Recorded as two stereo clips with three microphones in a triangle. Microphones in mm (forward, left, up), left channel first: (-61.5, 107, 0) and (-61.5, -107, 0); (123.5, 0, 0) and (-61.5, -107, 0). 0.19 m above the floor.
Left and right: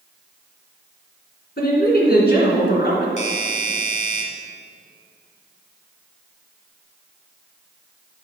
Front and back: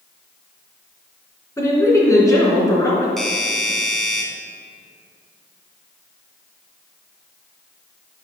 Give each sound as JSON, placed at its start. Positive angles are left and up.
{"t": 1.6, "sound": "a woman speaking", "azimuth_deg": 100, "distance_m": 2.5}
{"t": 3.2, "sound": "a doorbell", "azimuth_deg": 115, "distance_m": 1.7}